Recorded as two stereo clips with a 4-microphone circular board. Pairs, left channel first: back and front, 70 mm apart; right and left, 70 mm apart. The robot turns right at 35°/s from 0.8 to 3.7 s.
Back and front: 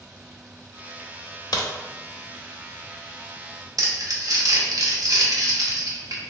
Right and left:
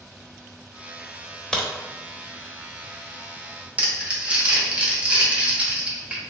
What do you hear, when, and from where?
1.5 s a crack: 165° right, 0.6 m; by 1.7 s 160° right, 0.6 m
3.8 s crumpling: 25° left, 0.7 m